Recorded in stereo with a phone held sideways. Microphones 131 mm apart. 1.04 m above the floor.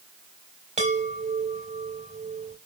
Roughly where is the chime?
Right.